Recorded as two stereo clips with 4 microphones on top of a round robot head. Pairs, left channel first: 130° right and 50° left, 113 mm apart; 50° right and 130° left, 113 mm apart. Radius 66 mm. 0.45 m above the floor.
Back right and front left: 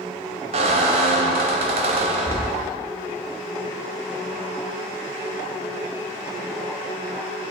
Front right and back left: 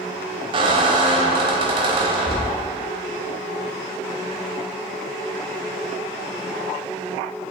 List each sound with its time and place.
0.5 s a squeak: 85° left, 0.6 m